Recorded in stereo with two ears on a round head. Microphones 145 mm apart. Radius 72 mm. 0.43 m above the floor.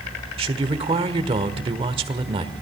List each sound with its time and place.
0.4 s a man speaking: 35° right (ahead or behind), 1.5 m